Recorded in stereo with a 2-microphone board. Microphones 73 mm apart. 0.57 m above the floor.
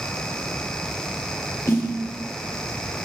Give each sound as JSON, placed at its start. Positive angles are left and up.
{"t": 1.7, "sound": "a snare drum", "side_deg": 40, "distance_m": 1.9}